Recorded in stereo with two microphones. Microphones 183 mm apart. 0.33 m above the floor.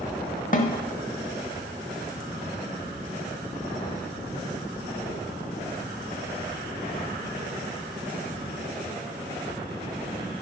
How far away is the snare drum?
About 0.6 m.